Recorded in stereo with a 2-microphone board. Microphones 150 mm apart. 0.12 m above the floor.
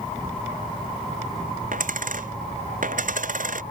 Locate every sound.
1.7 s a dropped coin: 65° right (ahead or behind)